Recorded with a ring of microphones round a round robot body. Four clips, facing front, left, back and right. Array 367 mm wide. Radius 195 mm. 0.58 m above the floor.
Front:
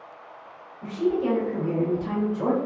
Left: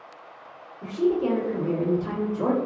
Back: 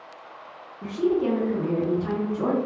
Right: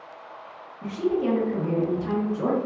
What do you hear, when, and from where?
0.8 s a woman speaking: 175° right, 1.5 m